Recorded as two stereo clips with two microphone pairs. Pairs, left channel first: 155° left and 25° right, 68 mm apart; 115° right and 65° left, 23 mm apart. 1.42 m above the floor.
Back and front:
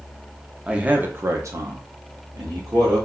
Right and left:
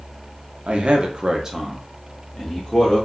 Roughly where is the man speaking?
Ahead left.